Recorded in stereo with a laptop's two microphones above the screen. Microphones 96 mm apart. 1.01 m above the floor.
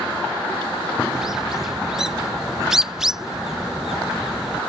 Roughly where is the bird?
Centre.